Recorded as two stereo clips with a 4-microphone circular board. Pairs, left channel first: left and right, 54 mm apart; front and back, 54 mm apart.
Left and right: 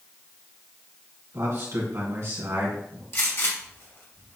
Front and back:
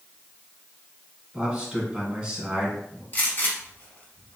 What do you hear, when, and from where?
1.3 s a man speaking: 105° right, 2 m
3.1 s a gunshot: 50° left, 1.3 m